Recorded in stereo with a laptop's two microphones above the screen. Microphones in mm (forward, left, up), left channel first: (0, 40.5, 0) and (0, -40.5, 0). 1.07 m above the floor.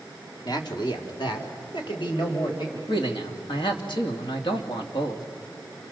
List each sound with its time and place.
0.5 s a man speaking: 55° left (ahead or behind), 2.0 m; by 2.8 s 70° left (ahead or behind), 4.5 m
2.9 s a man speaking: 75° left (ahead or behind), 2.5 m